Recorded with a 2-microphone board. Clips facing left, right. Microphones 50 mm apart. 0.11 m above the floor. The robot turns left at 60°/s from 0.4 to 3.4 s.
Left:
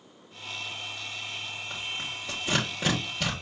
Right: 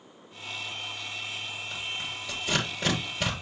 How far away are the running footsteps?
No running footsteps in this recording.